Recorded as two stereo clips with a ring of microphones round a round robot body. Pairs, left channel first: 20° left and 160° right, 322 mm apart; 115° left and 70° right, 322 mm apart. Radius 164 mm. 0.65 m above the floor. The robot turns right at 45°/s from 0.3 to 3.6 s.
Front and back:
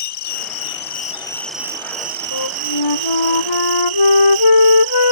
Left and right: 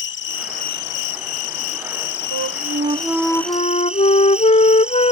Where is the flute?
20° right; by 5.1 s 40° left.